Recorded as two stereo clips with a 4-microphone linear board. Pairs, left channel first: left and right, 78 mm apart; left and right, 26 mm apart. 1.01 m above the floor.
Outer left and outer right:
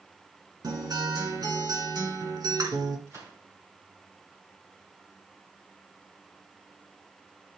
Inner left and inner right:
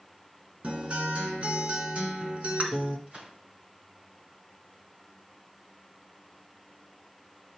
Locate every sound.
0.6 s a guitar: 60° right (ahead or behind), 2.5 m
3.1 s a gunshot: 50° right (ahead or behind), 4 m